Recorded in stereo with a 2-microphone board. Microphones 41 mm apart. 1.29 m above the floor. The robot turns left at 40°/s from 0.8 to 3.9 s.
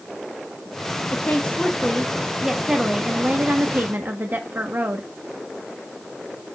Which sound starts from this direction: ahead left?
A woman speaking, at 1.1 s.